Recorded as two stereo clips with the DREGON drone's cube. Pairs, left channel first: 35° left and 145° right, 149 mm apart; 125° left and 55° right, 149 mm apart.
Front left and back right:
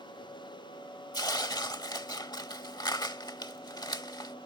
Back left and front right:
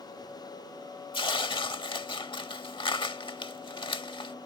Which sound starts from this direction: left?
Tearing paper, at 1.1 s.